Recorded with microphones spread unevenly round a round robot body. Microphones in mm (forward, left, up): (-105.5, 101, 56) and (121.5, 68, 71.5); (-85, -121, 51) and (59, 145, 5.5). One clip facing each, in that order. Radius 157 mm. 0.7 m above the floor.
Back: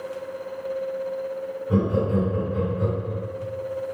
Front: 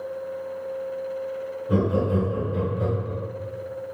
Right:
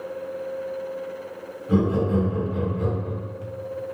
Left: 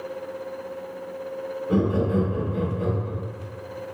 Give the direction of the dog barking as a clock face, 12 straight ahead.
I don't hear a dog barking.